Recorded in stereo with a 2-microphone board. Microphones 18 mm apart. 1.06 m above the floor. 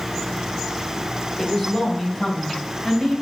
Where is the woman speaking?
20° left (ahead or behind), 4 m; by 3.1 s 30° left (ahead or behind), 5.5 m.